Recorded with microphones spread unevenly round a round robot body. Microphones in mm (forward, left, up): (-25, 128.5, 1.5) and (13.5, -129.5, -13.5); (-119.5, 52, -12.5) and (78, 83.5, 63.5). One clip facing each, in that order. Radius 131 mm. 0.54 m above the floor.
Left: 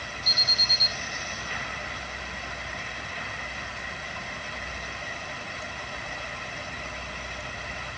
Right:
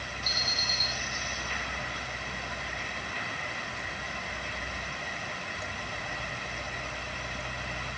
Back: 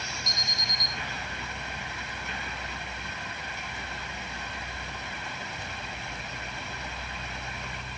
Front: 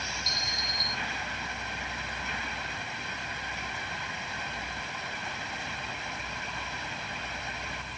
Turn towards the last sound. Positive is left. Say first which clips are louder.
# even, even
turn(degrees=45)